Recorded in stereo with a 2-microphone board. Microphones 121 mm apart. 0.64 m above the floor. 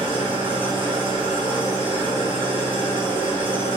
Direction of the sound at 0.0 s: 45° right (ahead or behind).